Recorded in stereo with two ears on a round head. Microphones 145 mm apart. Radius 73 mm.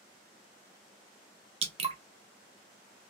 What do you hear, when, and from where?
1.6 s dripping: 35° right (ahead or behind), 0.6 m